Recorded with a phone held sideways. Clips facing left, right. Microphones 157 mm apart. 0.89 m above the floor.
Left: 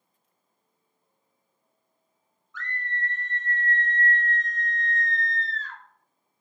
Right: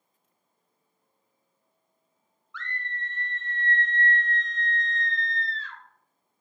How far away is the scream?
About 1.2 m.